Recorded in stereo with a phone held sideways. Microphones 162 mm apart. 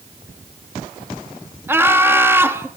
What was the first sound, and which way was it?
Laughter, 15° right (ahead or behind).